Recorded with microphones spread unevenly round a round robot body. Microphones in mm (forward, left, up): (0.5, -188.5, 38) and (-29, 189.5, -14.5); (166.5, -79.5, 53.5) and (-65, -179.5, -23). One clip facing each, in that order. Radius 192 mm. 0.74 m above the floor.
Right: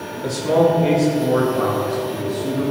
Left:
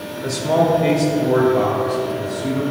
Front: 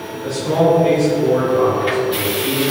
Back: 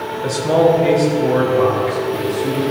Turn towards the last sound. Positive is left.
turn(degrees=155)